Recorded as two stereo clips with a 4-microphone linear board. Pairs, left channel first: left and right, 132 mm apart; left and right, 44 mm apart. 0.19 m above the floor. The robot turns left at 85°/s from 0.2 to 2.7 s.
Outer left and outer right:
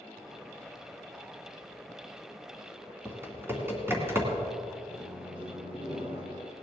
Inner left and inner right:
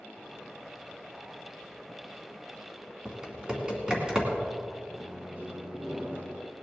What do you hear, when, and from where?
3.0 s typing on a keyboard: 20° right (ahead or behind), 2.5 m
4.9 s a microwave: 45° right (ahead or behind), 1.8 m